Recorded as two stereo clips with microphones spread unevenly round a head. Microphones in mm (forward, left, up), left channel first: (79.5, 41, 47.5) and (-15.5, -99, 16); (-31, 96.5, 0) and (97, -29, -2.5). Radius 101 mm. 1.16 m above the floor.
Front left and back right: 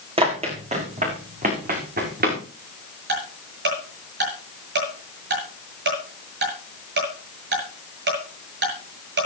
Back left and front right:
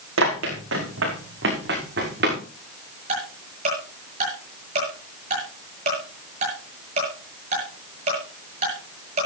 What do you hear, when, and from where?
0.2 s running footsteps: 65° right, 5 m; by 2.4 s 90° right, 6 m
3.1 s ticking: 105° right, 7 m